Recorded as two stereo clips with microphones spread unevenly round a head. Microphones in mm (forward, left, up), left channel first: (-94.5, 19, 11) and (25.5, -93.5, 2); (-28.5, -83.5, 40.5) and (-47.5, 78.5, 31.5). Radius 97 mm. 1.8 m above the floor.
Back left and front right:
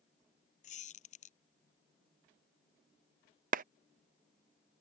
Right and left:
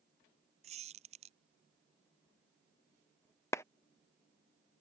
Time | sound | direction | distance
0.6 | a squeak | 135° left | ?
3.5 | a clap | 15° right | ?